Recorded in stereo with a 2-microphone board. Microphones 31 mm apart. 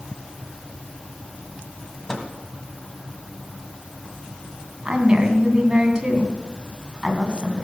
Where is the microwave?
20° left (ahead or behind), 1.8 m.